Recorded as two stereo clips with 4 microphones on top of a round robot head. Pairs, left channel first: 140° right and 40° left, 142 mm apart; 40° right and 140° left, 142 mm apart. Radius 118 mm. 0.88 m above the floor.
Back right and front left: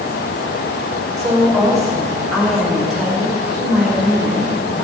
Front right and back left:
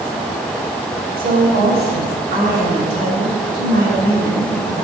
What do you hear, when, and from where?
1.2 s a woman speaking: 135° left, 3 m; by 4.8 s 130° left, 7 m